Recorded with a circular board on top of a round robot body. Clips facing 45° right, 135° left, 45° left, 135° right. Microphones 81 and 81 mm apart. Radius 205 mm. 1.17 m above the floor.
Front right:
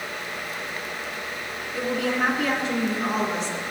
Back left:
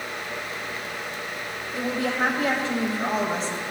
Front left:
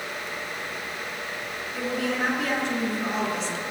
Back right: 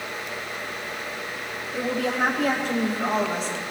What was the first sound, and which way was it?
A woman speaking, 175° right.